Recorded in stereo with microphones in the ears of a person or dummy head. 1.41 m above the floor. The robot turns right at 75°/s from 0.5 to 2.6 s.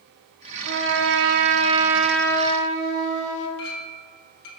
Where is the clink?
60° left (ahead or behind), 1.2 m.